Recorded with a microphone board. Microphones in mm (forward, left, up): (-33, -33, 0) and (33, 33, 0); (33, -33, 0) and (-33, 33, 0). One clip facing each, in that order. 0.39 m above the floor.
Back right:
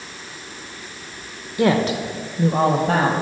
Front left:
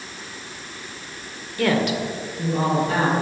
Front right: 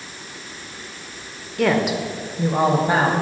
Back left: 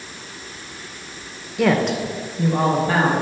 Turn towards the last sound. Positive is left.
turn(degrees=-110)